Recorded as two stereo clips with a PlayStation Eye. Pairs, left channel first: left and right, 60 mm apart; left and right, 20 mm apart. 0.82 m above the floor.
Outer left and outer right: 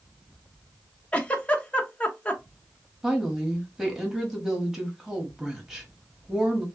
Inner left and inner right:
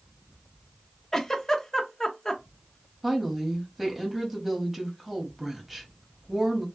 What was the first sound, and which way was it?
A giggle, 25° left (ahead or behind).